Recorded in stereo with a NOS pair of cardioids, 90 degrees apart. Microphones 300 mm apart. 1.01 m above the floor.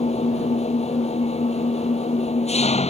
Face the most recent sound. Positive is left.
turn(degrees=20)